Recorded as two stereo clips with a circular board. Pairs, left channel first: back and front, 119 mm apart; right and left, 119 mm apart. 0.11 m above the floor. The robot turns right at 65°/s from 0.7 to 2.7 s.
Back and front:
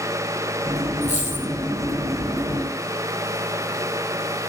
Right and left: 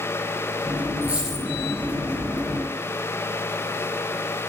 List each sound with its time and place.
1.0 s a dropped coin: 160° left, 4 m; by 1.4 s 170° right, 4 m